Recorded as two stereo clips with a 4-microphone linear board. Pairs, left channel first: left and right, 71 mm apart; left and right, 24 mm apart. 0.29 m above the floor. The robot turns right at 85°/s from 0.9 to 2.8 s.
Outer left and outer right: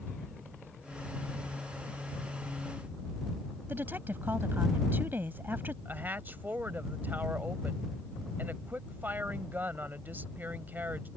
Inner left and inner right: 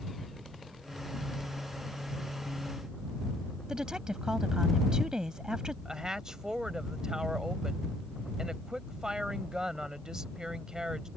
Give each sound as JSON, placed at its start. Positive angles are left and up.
{"t": 3.7, "sound": "a woman speaking", "side_deg": -30}
{"t": 5.8, "sound": "a woman speaking", "side_deg": -30}